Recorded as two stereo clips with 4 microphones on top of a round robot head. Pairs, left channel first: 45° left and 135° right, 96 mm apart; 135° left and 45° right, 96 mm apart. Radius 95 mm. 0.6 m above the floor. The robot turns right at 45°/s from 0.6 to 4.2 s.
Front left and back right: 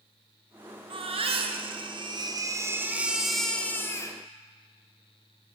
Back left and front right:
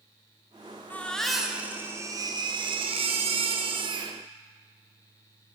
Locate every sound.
0.9 s a baby crying: 155° right, 2.5 m; by 4.2 s 5° right, 2.5 m